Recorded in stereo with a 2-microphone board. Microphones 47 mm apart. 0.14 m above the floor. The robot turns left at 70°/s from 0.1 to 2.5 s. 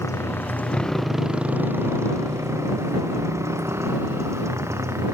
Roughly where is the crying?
No crying in this recording.